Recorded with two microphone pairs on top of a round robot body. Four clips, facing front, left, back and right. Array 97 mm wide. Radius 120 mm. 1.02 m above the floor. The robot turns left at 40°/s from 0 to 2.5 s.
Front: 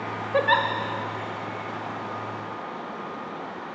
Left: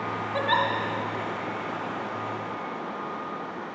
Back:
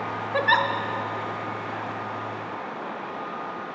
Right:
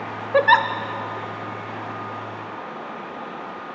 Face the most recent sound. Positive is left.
turn(degrees=-160)